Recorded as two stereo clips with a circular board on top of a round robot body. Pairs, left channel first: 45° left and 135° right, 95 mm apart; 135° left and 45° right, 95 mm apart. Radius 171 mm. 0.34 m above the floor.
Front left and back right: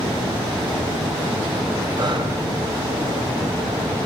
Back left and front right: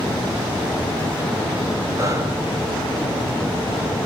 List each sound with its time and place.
2.0 s breathing: 100° right, 3.5 m